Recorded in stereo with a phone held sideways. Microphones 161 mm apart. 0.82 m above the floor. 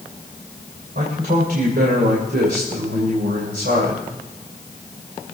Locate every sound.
0.9 s a man speaking: 80° right, 2.5 m